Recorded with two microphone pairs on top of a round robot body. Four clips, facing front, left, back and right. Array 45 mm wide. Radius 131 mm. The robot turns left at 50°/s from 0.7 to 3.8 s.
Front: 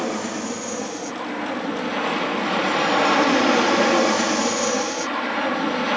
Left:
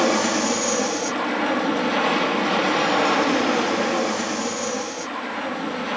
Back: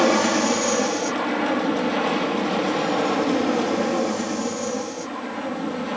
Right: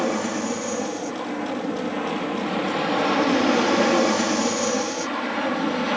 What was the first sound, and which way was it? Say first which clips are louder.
An aircraft: left 4 dB, back 8 dB; 140° left.